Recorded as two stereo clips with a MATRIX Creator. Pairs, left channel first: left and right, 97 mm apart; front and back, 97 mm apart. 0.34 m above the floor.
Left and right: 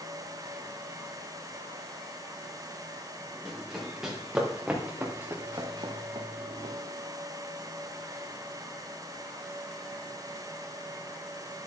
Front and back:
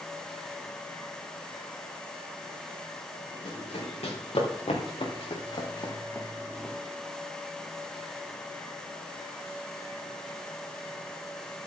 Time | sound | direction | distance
3.5 | running footsteps | 5° left | 4.5 m